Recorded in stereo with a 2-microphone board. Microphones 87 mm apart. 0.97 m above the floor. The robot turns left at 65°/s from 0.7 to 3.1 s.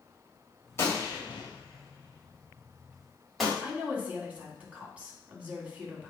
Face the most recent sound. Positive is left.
turn(degrees=-15)  # may be behind; listen again after turning